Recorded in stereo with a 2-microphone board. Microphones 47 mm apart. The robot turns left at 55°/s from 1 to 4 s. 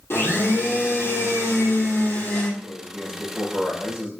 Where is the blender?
120° left, 3 m; by 2.5 s 40° left, 3 m.